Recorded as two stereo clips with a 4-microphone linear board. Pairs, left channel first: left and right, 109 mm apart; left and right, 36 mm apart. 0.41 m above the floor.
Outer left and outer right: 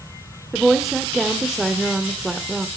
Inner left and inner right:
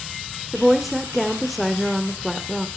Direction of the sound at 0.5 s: Centre (ahead or behind).